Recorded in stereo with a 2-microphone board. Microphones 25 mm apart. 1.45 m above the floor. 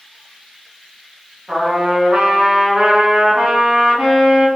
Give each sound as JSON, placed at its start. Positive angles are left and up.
{"t": 1.5, "sound": "a trumpet", "side_deg": -45, "distance_m": 0.8}